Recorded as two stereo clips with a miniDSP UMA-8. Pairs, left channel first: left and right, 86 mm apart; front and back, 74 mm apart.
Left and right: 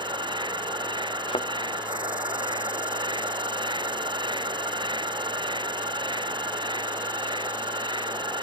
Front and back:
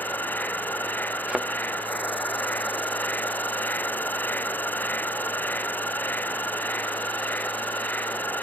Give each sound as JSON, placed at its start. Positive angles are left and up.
{"t": 0.0, "sound": "an insect", "azimuth_deg": -65}
{"t": 1.3, "sound": "a thud", "azimuth_deg": 100}